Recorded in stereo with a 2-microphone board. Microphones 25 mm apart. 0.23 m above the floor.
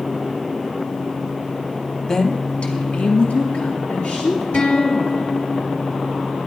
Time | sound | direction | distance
2.1 | a woman speaking | 30° left (ahead or behind) | 1.1 m
4.5 | a guitar | 70° left (ahead or behind) | 4 m